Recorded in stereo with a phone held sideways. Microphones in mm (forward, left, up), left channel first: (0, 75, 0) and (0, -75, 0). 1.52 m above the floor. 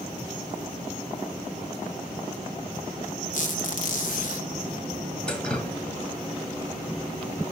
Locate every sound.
3.3 s a squeak: 65° left (ahead or behind), 2.5 m
5.3 s dripping: 5° left (ahead or behind), 2 m